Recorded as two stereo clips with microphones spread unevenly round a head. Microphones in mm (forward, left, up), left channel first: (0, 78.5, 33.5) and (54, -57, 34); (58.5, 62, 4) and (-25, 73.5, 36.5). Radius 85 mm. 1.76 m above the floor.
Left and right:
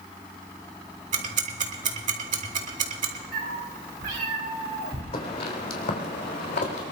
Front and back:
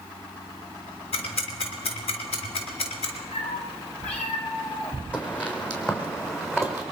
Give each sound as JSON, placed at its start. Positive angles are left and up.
{"t": 1.1, "sound": "ticking", "azimuth_deg": -40, "distance_m": 2.0}
{"t": 3.3, "sound": "a cat meowing", "azimuth_deg": -55, "distance_m": 3.0}
{"t": 5.1, "sound": "footsteps", "azimuth_deg": 70, "distance_m": 3.5}